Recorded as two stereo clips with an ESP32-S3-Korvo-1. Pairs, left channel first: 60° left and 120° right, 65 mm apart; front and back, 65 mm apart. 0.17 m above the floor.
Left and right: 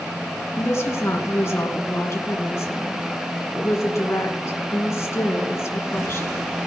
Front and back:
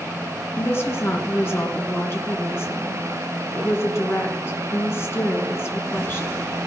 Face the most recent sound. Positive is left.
turn(degrees=35)